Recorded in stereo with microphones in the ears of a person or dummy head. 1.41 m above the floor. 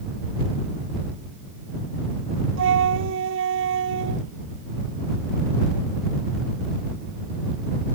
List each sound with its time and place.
2.6 s a flute: 85° right